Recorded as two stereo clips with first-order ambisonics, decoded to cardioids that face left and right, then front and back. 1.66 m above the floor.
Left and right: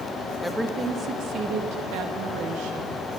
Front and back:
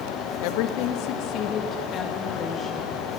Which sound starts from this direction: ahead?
A woman speaking, at 0.4 s.